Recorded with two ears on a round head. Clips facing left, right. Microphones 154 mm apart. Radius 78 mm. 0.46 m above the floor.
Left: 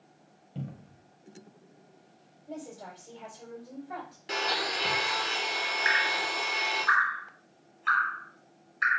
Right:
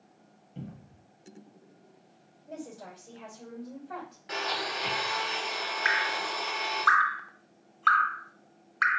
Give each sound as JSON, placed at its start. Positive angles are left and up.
{"t": 0.6, "sound": "a cupboard door", "side_deg": 55, "distance_m": 1.0}
{"t": 2.5, "sound": "a woman speaking", "side_deg": 5, "distance_m": 2.0}
{"t": 4.3, "sound": "a blender", "side_deg": 35, "distance_m": 1.2}
{"t": 5.8, "sound": "dripping", "side_deg": -65, "distance_m": 0.7}